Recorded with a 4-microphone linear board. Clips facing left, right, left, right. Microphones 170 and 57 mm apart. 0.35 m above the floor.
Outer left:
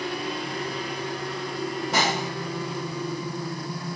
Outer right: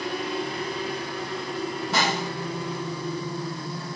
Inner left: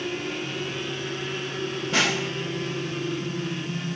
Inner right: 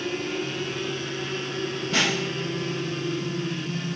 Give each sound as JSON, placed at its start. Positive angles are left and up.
{"t": 1.9, "sound": "a snare drum", "side_deg": 15, "distance_m": 3.0}